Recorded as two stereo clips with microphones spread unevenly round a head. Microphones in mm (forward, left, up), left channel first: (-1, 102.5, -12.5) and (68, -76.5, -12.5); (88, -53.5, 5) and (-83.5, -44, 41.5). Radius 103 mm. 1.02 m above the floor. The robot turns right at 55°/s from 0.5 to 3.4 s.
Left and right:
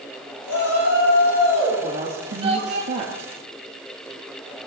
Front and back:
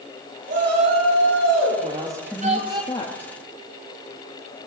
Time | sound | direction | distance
0.5 | a shout | 120° left | 7.5 m
1.8 | a woman speaking | 125° right | 1.9 m